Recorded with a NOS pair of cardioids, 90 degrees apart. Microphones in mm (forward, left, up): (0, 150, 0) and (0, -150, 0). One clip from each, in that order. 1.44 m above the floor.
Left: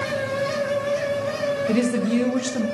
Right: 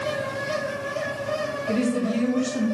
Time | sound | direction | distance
0.0 | a fan | 35° left | 1.2 m
1.7 | a woman speaking | 55° left | 1.2 m